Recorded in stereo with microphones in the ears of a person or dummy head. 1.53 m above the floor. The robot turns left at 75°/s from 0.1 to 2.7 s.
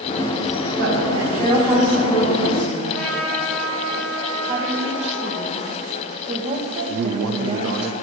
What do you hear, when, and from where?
0.8 s a woman speaking: 85° right, 4.5 m; by 2.8 s 130° left, 4.5 m
2.9 s a trumpet: 5° left (ahead or behind), 2.5 m
4.5 s a woman speaking: 35° right (ahead or behind), 1.6 m
6.9 s a man speaking: 75° right (ahead or behind), 0.7 m